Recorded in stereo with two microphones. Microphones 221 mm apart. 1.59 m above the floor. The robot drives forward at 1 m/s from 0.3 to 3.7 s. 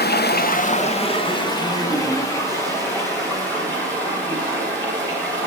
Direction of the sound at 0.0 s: 45° left (ahead or behind).